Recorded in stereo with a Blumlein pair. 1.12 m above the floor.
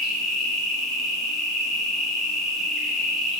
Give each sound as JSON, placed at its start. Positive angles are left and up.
{"t": 0.0, "sound": "an insect", "azimuth_deg": 15, "distance_m": 0.8}